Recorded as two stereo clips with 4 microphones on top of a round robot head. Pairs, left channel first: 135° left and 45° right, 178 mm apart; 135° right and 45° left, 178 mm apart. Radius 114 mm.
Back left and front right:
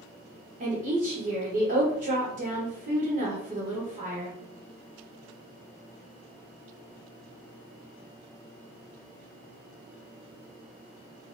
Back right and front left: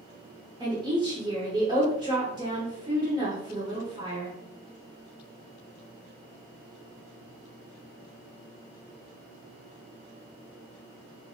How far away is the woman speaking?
About 1.5 m.